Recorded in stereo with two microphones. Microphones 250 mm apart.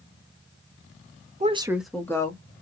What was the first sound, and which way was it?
A woman speaking, 25° right (ahead or behind).